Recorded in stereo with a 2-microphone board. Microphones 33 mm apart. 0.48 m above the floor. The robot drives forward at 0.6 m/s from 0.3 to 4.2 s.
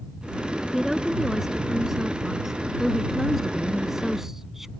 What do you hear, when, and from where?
0.7 s a woman speaking: 10° right (ahead or behind)